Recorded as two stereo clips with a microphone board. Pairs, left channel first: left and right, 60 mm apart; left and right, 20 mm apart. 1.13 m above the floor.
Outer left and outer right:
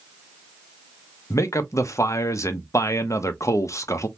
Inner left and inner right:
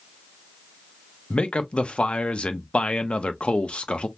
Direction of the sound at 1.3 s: 55° left (ahead or behind).